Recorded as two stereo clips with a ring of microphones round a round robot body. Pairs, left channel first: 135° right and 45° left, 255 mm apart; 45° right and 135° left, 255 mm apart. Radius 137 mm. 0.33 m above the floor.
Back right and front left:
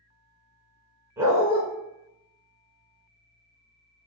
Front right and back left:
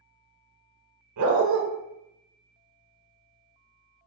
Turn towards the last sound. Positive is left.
turn(degrees=125)